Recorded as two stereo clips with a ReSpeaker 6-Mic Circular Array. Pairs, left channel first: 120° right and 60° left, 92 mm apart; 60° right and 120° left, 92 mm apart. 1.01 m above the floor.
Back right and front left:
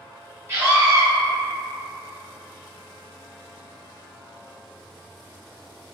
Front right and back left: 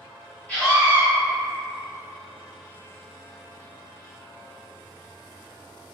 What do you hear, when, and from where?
0.5 s a scream: 10° left, 0.9 m